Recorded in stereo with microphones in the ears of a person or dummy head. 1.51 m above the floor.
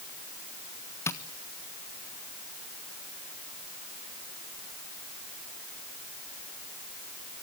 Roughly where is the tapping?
Centre.